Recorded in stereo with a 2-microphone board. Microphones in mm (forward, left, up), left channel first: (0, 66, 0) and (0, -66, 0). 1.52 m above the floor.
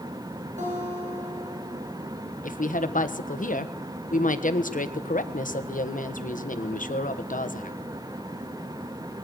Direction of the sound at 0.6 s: 65° right (ahead or behind).